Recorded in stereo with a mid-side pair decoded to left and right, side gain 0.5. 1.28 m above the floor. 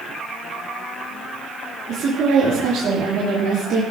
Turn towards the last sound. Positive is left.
turn(degrees=-50)